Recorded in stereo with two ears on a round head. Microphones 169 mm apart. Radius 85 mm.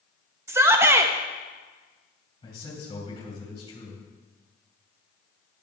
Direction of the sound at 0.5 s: 15° right (ahead or behind).